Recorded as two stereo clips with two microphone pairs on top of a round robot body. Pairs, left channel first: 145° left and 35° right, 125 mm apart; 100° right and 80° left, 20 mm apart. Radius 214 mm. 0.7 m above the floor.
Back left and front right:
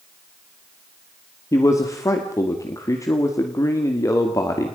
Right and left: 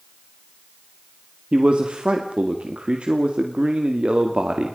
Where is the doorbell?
No doorbell in this recording.